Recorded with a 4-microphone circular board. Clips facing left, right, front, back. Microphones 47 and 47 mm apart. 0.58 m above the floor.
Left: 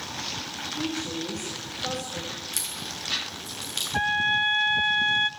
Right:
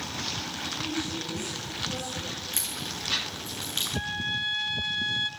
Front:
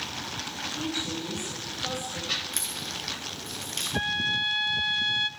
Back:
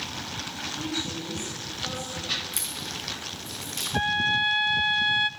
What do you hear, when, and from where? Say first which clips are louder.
0.8 s a woman speaking: left 3 dB, even; 65° left, 9 m; by 2.3 s 70° left, 10.5 m
2.5 s a crack: even, even; 35° right, 8.5 m
3.9 s a trumpet: left 10 dB, back 4 dB; 105° left, 0.8 m